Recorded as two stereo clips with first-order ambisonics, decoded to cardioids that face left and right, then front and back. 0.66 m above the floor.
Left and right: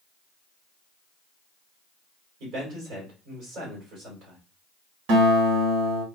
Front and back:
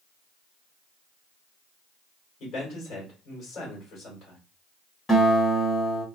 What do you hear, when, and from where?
2.4 s a man speaking: 55° right, 2.5 m
5.1 s a guitar: 80° right, 1.7 m